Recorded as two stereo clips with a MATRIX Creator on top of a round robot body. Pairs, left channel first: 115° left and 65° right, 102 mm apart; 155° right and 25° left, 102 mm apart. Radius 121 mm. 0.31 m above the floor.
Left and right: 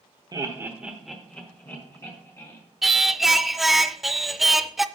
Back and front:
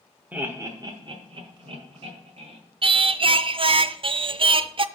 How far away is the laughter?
About 1.1 m.